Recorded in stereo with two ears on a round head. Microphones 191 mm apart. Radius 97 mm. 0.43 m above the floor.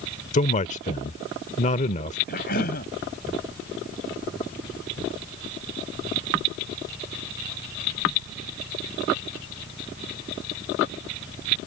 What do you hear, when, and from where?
0.3 s a man speaking: 35° left (ahead or behind)
2.3 s a cough: 50° left (ahead or behind)